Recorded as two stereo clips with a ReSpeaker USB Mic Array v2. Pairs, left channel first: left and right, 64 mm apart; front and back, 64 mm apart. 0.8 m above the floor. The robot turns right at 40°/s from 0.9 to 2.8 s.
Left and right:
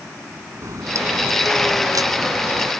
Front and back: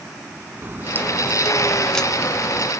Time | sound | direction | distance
0.6 | a crack | 125° right | ?